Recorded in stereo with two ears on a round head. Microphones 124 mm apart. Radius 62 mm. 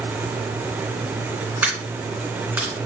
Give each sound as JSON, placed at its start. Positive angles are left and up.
{"t": 1.6, "sound": "a dropped coin", "side_deg": -10, "distance_m": 2.5}